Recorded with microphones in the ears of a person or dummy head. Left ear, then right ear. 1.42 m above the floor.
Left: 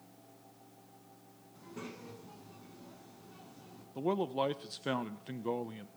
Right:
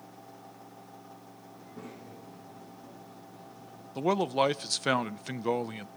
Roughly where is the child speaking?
Left.